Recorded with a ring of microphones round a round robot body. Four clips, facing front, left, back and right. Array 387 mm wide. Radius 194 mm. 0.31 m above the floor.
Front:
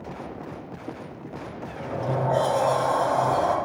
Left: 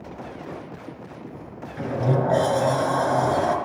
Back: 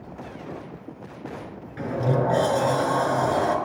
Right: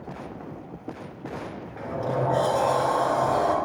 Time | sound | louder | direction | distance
1.8 | a sliding door | left 4 dB, back 4 dB | 135° left | 3 m